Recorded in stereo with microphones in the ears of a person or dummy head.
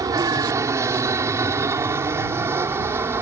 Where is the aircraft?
15° right (ahead or behind); by 3.2 s 10° right (ahead or behind).